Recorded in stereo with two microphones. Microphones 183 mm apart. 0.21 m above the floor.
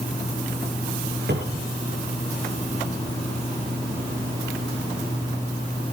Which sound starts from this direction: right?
A cupboard door, at 1.3 s.